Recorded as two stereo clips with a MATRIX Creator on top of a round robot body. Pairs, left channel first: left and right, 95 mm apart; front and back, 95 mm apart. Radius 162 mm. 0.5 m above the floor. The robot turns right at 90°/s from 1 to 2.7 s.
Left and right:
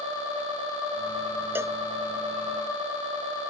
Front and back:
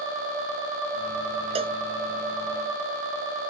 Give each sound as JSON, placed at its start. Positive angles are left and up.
{"t": 1.6, "sound": "a cowbell", "azimuth_deg": -160}